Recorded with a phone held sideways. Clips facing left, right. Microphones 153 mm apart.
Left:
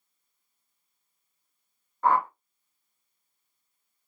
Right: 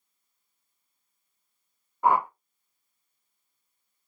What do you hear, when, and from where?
2.0 s a whoosh: 15° right (ahead or behind), 0.5 m